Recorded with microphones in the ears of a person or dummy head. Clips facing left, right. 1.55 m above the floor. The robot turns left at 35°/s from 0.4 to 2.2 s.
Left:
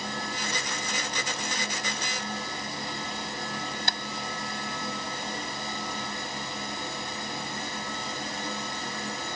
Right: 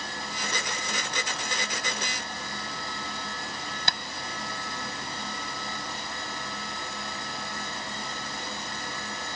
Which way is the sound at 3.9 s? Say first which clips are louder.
Even; 55° right (ahead or behind).